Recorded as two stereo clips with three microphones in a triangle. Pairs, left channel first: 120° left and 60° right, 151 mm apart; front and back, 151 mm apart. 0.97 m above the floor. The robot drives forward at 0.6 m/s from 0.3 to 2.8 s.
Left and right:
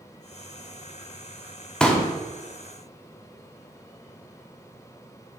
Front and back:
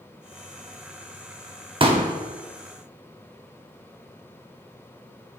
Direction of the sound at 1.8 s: 160° right.